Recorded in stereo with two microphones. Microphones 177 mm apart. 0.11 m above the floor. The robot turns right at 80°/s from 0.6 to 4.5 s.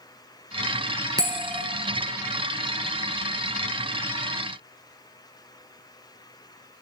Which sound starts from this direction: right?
A bell, at 1.2 s.